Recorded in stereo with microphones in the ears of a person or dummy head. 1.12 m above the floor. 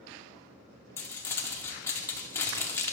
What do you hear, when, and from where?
1.0 s crumpling: 15° left (ahead or behind), 0.9 m